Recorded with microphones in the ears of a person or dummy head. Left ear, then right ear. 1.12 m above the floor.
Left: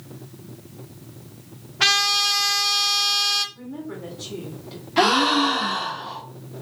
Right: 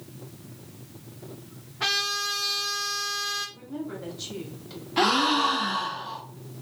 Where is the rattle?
No rattle in this recording.